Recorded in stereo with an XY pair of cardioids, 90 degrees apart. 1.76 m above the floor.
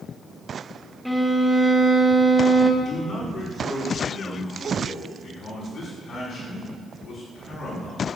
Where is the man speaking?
50° left, 6.5 m.